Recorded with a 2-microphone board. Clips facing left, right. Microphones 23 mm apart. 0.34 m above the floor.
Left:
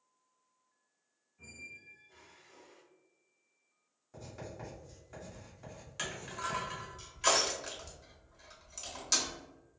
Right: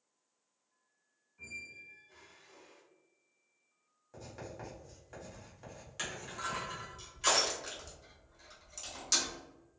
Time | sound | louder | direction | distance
1.4 | a squeak | right 3 dB | 60° right (ahead or behind) | 1.6 m
4.1 | writing | even | 20° right (ahead or behind) | 1.6 m
6.0 | crushing | left 1 dB | 5° left (ahead or behind) | 1.0 m